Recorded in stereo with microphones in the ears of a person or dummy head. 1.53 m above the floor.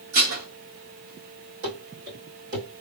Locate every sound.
0.1 s dishes clattering: 65° right (ahead or behind), 1.6 m
1.6 s running footsteps: 45° right (ahead or behind), 2 m; by 2.7 s 55° right (ahead or behind), 2.5 m